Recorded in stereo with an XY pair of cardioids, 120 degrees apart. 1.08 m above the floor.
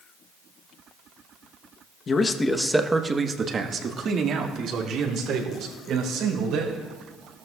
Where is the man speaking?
40° left, 0.9 m; by 6.9 s 65° right, 4 m.